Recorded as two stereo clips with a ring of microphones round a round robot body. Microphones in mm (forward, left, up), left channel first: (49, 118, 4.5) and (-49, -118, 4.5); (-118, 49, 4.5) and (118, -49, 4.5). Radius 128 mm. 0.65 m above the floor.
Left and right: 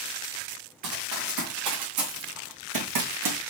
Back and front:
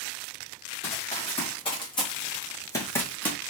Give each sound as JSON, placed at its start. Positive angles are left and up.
{"t": 0.8, "sound": "running footsteps", "azimuth_deg": -135, "distance_m": 4.0}